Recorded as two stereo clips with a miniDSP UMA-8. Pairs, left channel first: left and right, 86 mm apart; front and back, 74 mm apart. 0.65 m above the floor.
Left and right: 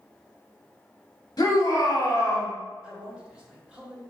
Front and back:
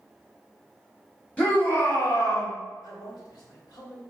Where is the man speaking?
15° right, 1.5 m.